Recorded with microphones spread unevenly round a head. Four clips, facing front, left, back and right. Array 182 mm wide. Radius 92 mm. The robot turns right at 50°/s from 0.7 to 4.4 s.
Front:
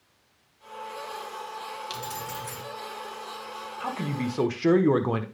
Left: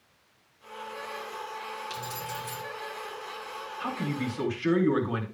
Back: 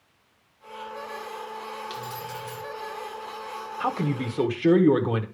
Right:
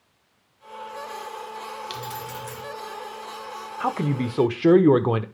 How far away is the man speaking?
About 0.9 m.